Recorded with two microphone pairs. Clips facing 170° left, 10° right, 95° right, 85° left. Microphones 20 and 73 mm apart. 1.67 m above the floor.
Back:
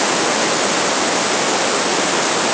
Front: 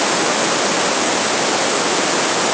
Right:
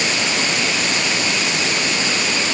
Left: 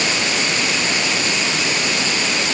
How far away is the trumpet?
No trumpet in this recording.